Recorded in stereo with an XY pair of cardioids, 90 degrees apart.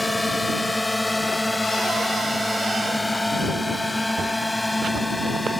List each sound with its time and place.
0.0 s a drone: 15° left; by 5.6 s 10° left